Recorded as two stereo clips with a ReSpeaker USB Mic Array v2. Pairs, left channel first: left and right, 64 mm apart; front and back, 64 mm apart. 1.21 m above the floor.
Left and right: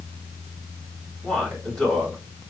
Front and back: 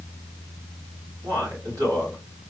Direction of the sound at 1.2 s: 170° left.